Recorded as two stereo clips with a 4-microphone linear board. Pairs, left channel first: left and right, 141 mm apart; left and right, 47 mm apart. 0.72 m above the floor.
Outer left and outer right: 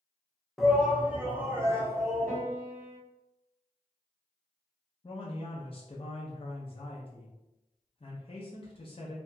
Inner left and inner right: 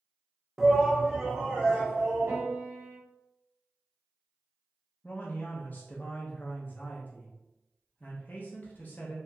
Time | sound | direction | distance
0.6 | a shout | centre (ahead or behind) | 0.5 m
2.3 | a piano | 60° right (ahead or behind) | 0.9 m
5.0 | a man speaking | 40° left (ahead or behind) | 0.5 m